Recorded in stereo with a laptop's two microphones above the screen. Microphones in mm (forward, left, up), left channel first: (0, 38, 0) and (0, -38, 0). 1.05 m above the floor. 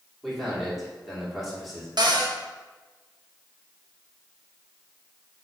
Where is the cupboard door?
65° right (ahead or behind), 1.1 m.